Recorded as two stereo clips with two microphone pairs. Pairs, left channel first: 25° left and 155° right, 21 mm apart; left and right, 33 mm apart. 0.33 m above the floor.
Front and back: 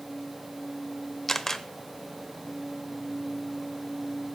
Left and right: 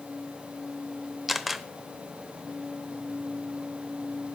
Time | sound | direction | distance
1.3 | a camera shutter | 10° right | 0.9 m